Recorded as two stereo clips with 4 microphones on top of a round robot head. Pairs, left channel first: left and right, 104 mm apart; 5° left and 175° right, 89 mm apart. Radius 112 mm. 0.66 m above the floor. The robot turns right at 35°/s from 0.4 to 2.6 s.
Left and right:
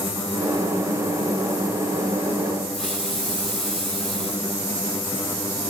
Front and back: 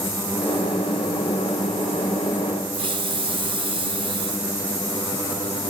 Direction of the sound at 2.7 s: 175° left.